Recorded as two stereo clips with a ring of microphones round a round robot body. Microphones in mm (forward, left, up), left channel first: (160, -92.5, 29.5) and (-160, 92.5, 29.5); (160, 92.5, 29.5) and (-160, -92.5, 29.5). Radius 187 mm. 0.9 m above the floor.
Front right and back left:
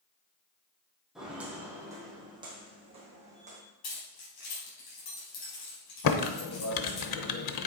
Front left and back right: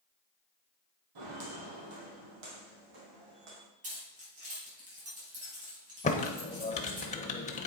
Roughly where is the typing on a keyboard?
Ahead right.